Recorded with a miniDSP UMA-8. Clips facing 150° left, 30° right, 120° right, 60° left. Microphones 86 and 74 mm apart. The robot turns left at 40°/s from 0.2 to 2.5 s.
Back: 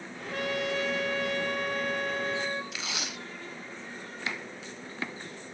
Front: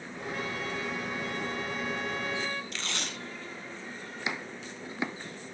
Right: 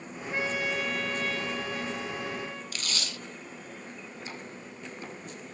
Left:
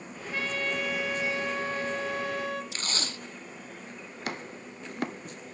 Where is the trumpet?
175° left, 2 m; by 2.6 s 85° left, 2 m.